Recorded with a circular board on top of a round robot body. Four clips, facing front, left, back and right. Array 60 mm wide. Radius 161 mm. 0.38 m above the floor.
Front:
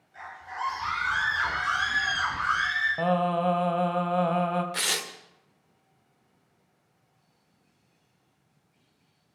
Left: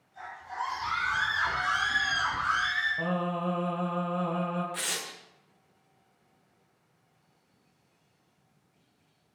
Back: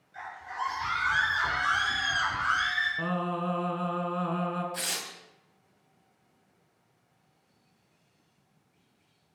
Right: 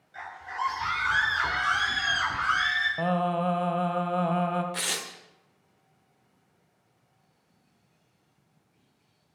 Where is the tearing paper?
20° right, 2.5 m.